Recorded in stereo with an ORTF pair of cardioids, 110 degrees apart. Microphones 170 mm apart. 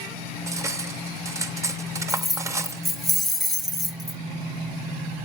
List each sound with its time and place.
0.5 s cutlery clinking: 15° right, 0.9 m
2.1 s keys jangling: straight ahead, 0.9 m